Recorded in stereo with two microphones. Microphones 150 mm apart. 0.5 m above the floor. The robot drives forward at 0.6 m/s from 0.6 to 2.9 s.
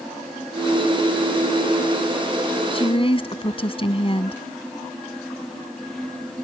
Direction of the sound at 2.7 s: 40° left (ahead or behind).